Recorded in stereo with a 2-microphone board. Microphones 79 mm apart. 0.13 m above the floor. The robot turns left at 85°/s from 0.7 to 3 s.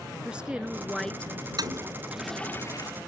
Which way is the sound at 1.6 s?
55° right (ahead or behind).